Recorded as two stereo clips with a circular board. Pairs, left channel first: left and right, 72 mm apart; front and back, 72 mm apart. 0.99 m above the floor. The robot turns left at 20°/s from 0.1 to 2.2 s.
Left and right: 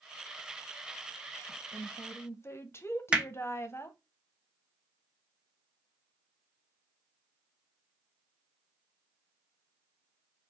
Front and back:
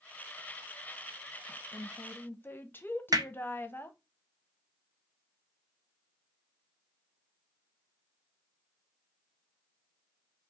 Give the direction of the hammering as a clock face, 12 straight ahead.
6 o'clock.